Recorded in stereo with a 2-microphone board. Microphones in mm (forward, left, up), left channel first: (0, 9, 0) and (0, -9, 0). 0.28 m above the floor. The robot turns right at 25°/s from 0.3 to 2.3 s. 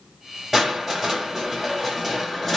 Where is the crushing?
5° right (ahead or behind), 1.5 m; by 2.6 s 15° left (ahead or behind), 1.5 m.